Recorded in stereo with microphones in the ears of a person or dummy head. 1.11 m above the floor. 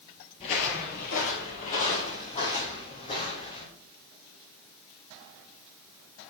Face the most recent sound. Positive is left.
turn(degrees=35)  # may be behind; listen again after turning